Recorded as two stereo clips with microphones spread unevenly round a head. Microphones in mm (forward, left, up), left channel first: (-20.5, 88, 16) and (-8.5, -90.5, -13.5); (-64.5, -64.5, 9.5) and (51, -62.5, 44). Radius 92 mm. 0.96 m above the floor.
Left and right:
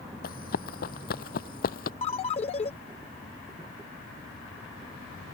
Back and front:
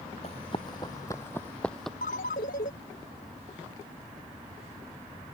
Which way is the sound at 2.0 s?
145° left.